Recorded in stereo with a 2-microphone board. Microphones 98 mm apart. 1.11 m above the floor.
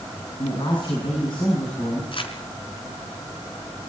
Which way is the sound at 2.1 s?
55° left (ahead or behind).